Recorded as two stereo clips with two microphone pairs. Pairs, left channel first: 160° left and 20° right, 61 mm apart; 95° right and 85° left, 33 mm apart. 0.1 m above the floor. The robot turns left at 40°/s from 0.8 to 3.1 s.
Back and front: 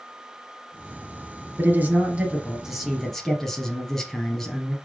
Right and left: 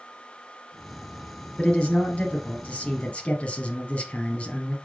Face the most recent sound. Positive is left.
turn(degrees=-120)